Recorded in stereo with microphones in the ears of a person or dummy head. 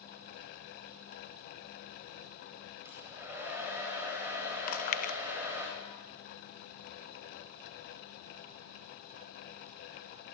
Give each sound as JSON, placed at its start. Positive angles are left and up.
{"t": 2.9, "sound": "a hair dryer", "side_deg": -15, "distance_m": 9.5}
{"t": 4.7, "sound": "chewing", "side_deg": 50, "distance_m": 1.2}